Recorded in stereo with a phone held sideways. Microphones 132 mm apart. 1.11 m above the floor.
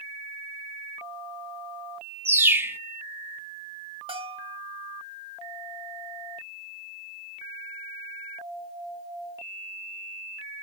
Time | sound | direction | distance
2.2 | a bird | 15° right (ahead or behind) | 0.6 m
4.1 | a bell | 40° right (ahead or behind) | 1.1 m